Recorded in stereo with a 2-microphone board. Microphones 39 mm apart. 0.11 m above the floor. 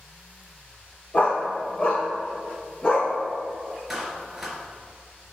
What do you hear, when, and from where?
1.1 s a dog barking: 35° left (ahead or behind), 3 m; by 3.1 s 20° left (ahead or behind), 4 m
3.9 s a clap: 5° right (ahead or behind), 1.8 m